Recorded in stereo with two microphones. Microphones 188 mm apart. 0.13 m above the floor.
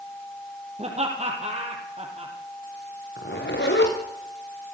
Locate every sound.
0.8 s laughter: 35° right (ahead or behind), 5 m
3.2 s a zipper: 70° left (ahead or behind), 5.5 m